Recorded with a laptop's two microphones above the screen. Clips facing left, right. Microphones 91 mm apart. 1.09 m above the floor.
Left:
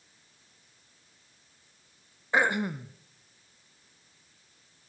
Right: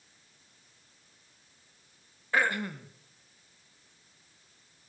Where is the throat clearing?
20° left (ahead or behind), 0.6 m.